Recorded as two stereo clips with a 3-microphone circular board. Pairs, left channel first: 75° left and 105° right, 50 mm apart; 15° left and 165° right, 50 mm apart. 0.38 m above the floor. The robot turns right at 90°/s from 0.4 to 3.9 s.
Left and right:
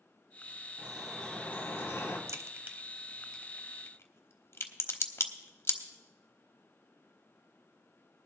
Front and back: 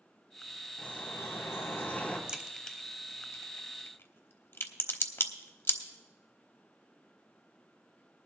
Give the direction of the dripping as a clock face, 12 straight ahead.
1 o'clock.